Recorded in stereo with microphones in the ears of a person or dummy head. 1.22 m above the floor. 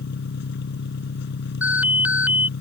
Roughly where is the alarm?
Centre.